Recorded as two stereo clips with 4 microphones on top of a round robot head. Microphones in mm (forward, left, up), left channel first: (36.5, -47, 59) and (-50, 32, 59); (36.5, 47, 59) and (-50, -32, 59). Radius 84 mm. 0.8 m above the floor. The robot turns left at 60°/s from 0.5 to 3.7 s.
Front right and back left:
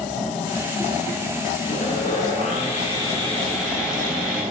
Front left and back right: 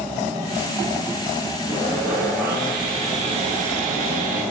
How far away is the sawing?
About 9 m.